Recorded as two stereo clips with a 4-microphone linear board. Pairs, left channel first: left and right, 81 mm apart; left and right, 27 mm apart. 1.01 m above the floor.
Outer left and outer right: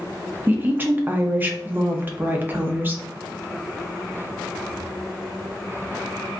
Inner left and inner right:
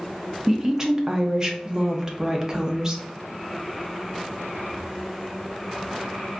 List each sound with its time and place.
0.5 s a woman speaking: 25° right (ahead or behind), 0.6 m